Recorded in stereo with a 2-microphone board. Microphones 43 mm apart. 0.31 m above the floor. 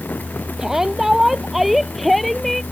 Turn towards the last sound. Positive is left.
turn(degrees=5)  # may be behind; listen again after turning